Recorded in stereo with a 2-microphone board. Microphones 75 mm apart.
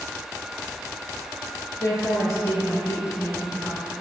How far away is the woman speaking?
About 2 m.